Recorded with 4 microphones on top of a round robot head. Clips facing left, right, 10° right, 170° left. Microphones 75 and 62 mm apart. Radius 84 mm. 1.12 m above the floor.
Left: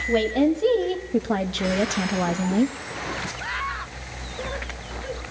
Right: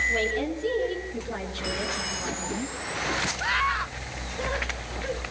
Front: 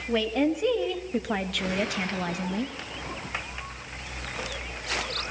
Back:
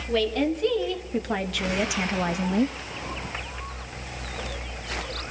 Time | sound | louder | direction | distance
0.1 | a woman speaking | left 7 dB, back 1 dB | 65° left | 2.0 m